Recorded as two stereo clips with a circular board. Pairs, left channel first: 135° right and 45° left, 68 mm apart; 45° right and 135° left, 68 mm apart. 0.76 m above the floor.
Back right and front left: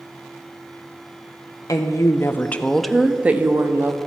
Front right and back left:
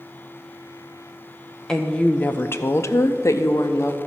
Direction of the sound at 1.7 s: 125° right.